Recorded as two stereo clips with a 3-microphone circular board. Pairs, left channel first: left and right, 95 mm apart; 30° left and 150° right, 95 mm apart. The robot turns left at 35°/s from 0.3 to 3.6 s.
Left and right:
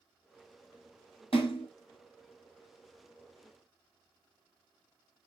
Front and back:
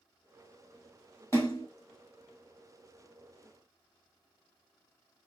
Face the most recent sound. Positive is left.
turn(degrees=10)